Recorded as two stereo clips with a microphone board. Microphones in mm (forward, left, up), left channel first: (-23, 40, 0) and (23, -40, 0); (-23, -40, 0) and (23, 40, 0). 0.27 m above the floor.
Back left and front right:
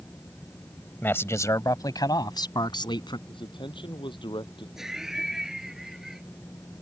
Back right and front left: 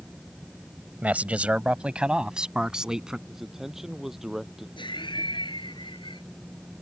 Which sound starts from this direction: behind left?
A man speaking, at 3.3 s.